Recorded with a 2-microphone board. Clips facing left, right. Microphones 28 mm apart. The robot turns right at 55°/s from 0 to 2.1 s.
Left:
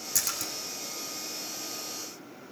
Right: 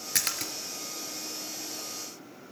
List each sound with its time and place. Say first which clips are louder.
0.1 s a splash: right 2 dB; 55° right (ahead or behind), 1.7 m; by 0.5 s 45° right (ahead or behind), 1.7 m